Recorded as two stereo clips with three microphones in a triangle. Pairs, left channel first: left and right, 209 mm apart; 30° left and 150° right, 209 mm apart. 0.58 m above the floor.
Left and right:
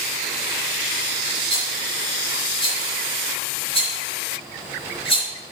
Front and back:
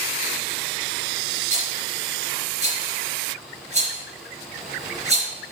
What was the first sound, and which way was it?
A rattle, 155° left.